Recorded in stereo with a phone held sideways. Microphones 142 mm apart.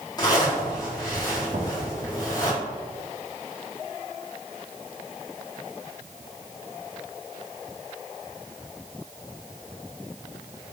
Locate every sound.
0.2 s a zipper: 30° left (ahead or behind), 3.5 m
1.5 s knocking: 85° right, 1.9 m